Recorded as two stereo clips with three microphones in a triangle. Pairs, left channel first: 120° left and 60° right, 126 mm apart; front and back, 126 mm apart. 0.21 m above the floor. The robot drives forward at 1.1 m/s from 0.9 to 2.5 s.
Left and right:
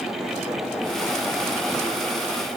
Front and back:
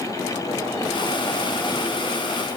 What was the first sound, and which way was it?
Only background noise.